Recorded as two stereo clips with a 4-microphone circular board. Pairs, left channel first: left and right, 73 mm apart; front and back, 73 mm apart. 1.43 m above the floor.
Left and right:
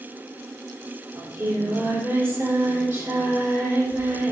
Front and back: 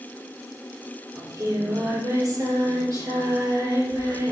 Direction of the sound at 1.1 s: 140° right.